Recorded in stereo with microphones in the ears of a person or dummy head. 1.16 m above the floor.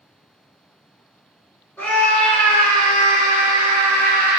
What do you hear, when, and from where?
1.8 s a scream: 5° left (ahead or behind), 1.0 m; by 4.4 s 55° right (ahead or behind), 1.6 m